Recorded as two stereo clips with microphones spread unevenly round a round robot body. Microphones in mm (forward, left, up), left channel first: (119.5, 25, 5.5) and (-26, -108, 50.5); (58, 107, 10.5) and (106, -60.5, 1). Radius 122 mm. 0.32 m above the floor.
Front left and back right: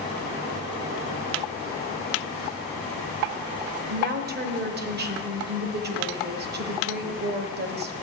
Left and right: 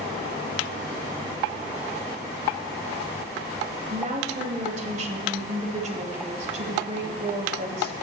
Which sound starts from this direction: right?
A woman speaking, at 3.9 s.